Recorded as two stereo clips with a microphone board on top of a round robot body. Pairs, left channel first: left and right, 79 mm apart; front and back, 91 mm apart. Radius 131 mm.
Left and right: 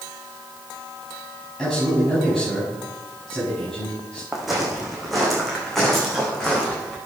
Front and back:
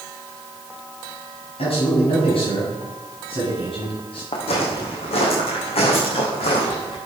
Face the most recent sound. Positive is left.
turn(degrees=5)